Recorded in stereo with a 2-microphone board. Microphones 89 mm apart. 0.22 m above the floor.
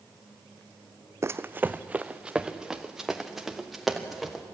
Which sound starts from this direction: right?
Running footsteps, at 1.2 s.